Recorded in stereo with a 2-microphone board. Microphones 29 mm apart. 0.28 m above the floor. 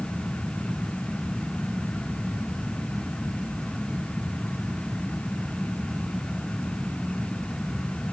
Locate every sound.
Only background noise.